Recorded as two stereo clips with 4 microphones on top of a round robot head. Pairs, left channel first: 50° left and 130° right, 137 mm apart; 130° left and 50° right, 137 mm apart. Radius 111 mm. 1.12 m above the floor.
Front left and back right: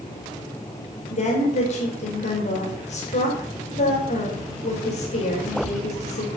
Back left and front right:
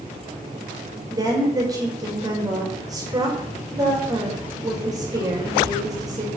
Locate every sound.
1.1 s a woman speaking: 15° left, 5.5 m